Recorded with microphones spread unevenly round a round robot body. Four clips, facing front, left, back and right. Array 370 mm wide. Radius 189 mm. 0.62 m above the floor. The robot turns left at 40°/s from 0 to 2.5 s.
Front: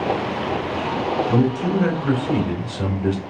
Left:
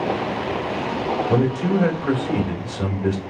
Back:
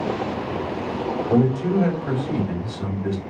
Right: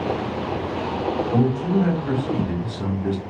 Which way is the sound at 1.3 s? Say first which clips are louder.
Left 1 dB, back 3 dB; 100° left.